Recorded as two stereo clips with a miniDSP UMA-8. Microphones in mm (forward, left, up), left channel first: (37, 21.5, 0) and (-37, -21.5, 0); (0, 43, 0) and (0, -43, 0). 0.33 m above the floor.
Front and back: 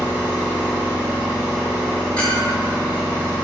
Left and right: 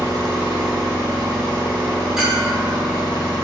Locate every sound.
0.0 s an engine running: 75° right, 1.3 m
2.2 s a clink: 15° right, 0.7 m